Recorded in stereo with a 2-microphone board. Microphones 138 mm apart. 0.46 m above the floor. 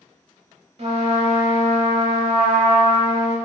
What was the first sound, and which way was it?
A trumpet, 50° right (ahead or behind).